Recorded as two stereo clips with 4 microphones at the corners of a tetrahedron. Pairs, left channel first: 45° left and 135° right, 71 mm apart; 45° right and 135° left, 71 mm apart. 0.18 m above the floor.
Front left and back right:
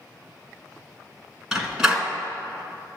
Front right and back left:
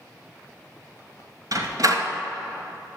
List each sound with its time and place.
1.5 s a door slam: 145° left, 1.4 m